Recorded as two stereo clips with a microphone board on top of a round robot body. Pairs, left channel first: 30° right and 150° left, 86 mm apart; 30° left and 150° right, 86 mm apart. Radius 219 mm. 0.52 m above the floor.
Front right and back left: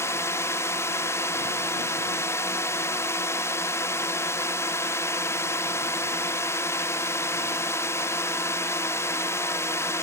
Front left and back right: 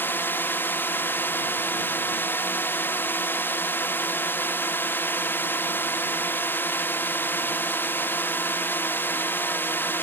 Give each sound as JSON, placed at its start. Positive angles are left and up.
{"t": 0.0, "sound": "a drone", "azimuth_deg": -15}